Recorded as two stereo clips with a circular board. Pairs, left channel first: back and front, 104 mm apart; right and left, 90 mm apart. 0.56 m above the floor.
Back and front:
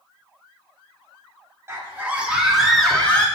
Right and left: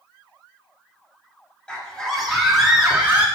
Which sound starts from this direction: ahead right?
A scream, at 1.7 s.